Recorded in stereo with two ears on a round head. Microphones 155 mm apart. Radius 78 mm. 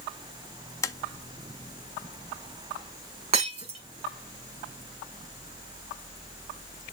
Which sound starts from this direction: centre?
Tapping, at 0.8 s.